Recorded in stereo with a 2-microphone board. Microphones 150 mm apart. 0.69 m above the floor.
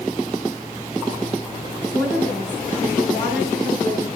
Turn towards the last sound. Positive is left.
turn(degrees=-80)